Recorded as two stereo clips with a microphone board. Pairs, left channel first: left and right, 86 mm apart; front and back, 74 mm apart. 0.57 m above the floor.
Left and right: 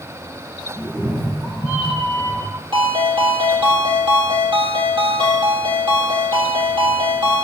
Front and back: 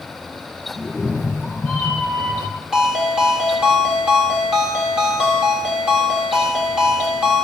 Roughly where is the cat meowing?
Right.